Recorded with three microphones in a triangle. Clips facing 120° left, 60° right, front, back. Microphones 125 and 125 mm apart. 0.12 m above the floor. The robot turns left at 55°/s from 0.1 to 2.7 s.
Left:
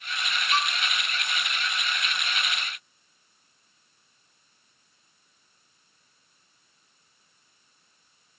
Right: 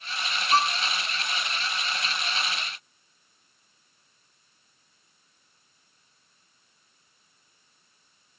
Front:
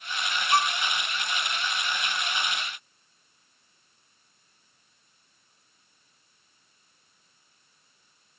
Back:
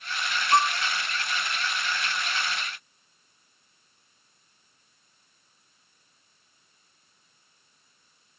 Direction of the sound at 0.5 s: 110° right.